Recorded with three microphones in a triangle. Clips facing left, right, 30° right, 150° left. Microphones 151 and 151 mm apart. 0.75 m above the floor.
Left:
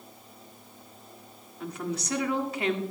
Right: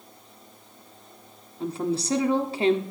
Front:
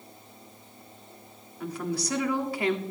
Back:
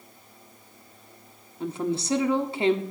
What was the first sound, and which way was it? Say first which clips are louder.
A woman speaking: right 7 dB, back 4 dB; 145° right.